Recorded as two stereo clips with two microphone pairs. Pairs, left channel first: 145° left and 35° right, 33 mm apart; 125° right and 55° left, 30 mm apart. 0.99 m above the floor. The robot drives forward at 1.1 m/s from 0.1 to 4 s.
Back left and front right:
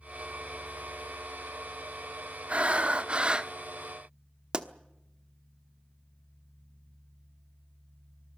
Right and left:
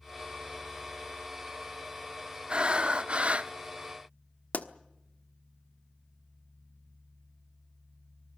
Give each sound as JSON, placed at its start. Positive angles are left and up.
{"t": 2.5, "sound": "breathing", "azimuth_deg": 10, "distance_m": 1.7}
{"t": 4.5, "sound": "a pop", "azimuth_deg": -100, "distance_m": 1.2}